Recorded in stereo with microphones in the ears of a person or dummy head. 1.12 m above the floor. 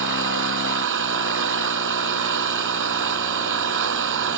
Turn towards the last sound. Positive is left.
turn(degrees=-60)  # may be behind; listen again after turning